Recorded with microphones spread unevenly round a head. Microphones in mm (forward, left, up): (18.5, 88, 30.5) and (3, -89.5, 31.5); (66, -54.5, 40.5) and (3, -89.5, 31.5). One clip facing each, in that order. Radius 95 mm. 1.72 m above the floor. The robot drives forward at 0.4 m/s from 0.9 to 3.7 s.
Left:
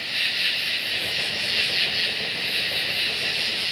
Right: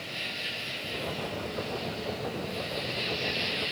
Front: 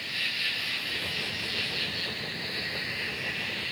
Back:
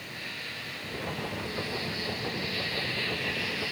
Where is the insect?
65° left, 1.1 m; by 3.7 s 125° left, 1.2 m.